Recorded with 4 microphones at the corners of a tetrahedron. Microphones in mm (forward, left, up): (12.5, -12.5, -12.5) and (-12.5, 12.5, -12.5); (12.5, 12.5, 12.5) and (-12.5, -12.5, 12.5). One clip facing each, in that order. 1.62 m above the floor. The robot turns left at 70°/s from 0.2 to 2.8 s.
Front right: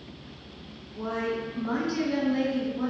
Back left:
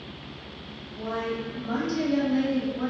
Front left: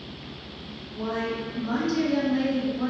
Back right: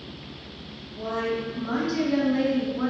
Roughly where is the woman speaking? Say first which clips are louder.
Even, back right 1 dB; ahead.